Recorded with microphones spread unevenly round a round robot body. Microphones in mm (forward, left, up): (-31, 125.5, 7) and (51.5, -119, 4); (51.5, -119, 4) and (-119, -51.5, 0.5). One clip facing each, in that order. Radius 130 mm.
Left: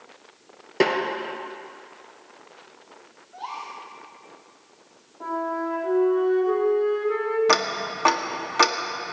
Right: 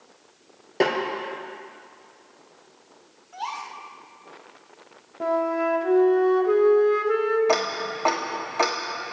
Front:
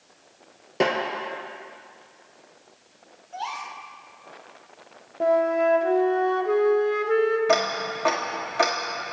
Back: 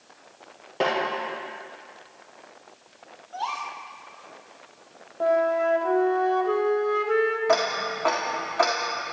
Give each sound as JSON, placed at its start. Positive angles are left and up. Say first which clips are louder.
{"t": 0.8, "sound": "a snare drum", "louder": "left 1 dB, front 2 dB", "azimuth_deg": 35, "distance_m": 3.5}
{"t": 3.3, "sound": "a gasp", "louder": "right 2 dB, back 1 dB", "azimuth_deg": -90, "distance_m": 2.5}
{"t": 5.2, "sound": "a flute", "louder": "right 4 dB, front 1 dB", "azimuth_deg": -90, "distance_m": 1.7}
{"t": 7.5, "sound": "ticking", "louder": "right 1 dB, even", "azimuth_deg": 50, "distance_m": 1.5}